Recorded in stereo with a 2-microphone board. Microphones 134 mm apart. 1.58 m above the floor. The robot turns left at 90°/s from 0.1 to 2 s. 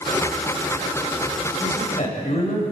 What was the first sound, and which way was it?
A man speaking, 150° left.